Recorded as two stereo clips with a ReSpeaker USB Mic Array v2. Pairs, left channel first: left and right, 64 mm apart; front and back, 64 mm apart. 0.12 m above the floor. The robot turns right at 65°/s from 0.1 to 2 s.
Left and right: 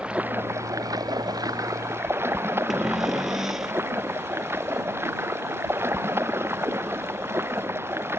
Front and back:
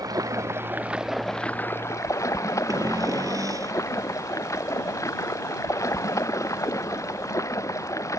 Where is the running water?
160° right; by 8.2 s 40° right.